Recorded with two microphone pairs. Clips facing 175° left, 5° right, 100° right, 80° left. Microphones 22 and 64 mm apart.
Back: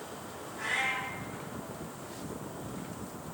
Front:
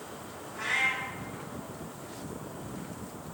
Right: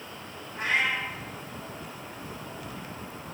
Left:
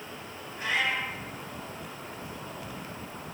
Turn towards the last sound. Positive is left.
turn(degrees=-55)